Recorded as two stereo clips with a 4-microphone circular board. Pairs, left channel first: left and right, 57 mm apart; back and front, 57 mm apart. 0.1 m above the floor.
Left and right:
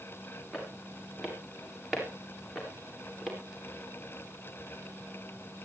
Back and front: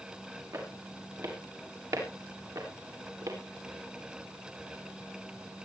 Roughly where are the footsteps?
Ahead.